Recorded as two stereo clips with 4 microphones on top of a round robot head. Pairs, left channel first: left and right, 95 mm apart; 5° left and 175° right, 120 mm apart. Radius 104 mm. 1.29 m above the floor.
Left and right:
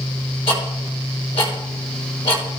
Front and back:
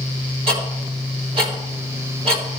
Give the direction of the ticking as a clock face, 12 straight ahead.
7 o'clock.